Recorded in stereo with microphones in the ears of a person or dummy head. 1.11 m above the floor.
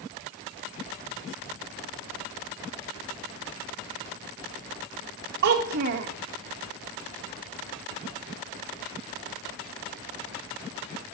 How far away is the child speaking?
About 0.8 m.